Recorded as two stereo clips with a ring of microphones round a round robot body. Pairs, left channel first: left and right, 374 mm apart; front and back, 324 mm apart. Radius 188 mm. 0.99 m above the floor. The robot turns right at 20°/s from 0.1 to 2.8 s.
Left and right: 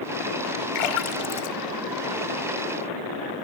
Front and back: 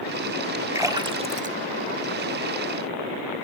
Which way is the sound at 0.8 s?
100° left.